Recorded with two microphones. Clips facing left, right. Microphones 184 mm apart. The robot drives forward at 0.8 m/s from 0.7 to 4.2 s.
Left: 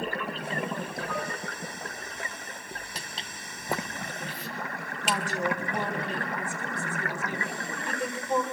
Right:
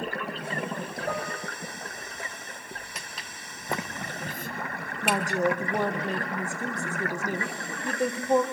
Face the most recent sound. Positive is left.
turn(degrees=-45)  # may be behind; listen again after turning